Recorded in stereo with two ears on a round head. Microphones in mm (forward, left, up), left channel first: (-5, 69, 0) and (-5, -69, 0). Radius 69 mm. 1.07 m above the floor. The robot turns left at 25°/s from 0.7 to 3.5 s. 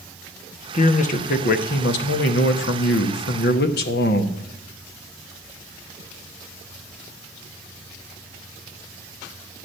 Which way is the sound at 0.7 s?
135° left.